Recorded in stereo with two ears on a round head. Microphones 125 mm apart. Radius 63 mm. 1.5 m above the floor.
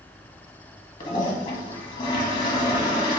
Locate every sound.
1.0 s a toilet flushing: 35° left (ahead or behind), 1.0 m